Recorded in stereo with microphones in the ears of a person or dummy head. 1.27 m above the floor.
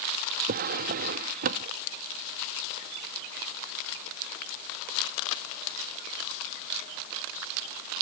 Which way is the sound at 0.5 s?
45° right (ahead or behind).